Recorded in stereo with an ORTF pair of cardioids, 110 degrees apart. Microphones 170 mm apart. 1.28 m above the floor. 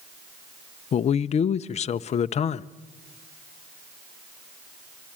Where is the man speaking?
40° left, 0.6 m.